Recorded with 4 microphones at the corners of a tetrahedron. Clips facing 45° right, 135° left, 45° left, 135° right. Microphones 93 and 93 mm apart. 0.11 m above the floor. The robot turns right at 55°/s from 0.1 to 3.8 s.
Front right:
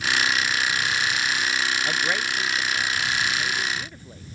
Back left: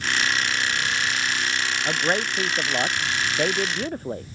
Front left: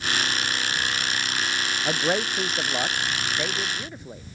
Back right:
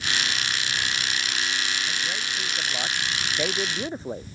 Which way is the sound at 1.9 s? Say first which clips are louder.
Back left 2 dB, front left 7 dB; 60° left.